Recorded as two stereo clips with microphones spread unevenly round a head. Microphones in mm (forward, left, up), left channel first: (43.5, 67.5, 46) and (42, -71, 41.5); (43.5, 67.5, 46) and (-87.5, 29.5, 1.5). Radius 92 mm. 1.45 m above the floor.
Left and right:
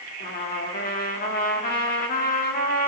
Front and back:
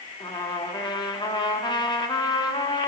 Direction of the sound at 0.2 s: 75° left.